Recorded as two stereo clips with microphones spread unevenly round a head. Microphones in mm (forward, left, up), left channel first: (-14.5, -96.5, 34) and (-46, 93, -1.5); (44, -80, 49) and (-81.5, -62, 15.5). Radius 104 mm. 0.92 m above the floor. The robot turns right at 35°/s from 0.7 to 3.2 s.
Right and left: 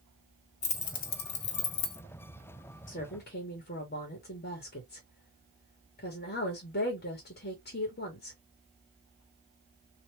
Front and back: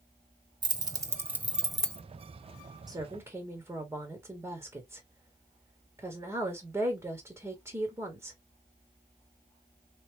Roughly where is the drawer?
I don't hear a drawer.